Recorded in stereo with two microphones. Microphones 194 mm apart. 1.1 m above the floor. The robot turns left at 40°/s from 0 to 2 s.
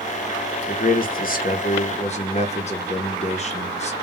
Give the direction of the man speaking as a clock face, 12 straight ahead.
9 o'clock.